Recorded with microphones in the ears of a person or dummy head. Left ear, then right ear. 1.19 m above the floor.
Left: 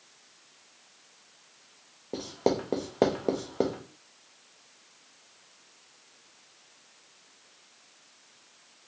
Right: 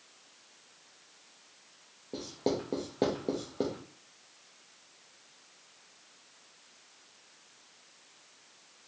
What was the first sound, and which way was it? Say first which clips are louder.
Writing: left 5 dB; 30° left (ahead or behind).